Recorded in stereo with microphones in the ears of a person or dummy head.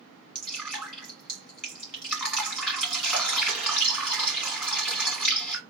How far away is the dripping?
About 1.9 m.